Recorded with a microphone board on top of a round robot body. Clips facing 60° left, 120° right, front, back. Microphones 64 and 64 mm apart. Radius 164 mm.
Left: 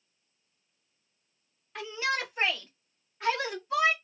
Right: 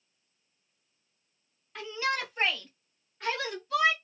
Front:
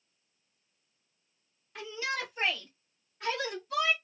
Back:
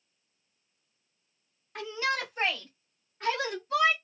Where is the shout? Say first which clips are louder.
Even, back 4 dB; 145° left, 2.5 m; by 3.9 s 120° left, 1.5 m.